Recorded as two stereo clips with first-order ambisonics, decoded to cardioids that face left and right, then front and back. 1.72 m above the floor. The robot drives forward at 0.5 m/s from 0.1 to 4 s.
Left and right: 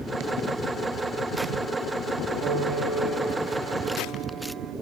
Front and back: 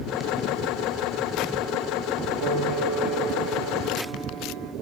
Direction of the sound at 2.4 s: 140° right.